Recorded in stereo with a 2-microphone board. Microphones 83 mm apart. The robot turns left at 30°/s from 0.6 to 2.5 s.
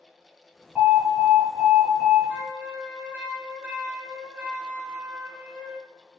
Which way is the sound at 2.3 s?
20° right (ahead or behind).